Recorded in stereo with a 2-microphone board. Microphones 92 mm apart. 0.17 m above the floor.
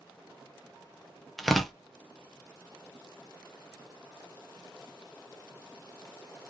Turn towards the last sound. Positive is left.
turn(degrees=0)  # may be behind; listen again after turning